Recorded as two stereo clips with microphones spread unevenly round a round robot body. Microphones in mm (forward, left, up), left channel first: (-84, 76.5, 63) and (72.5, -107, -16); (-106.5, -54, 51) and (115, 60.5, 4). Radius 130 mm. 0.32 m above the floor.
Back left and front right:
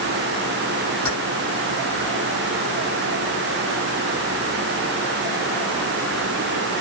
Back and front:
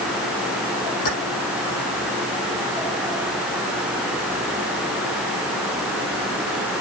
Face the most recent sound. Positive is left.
turn(degrees=-150)